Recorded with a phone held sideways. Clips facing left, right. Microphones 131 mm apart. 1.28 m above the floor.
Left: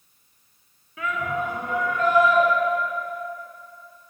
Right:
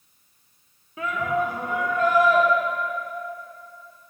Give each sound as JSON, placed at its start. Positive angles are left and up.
{"t": 1.0, "sound": "a shout", "side_deg": -30, "distance_m": 0.9}